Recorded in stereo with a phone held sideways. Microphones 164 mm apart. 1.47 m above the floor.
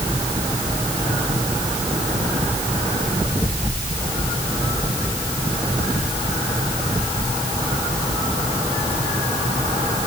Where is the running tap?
No running tap in this recording.